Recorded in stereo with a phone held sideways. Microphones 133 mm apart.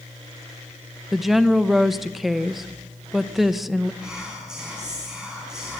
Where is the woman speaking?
Centre (ahead or behind), 0.7 m.